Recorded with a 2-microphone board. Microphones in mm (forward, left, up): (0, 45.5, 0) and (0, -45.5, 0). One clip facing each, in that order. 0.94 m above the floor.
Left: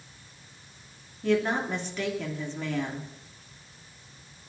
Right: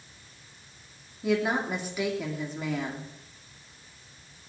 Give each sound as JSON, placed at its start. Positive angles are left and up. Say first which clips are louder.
{"t": 1.2, "sound": "a woman speaking", "louder": "left 1 dB", "side_deg": -10, "distance_m": 2.5}